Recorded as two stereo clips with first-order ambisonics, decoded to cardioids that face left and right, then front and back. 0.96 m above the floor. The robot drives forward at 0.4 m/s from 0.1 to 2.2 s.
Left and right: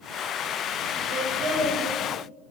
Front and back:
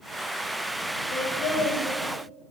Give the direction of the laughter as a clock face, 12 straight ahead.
1 o'clock.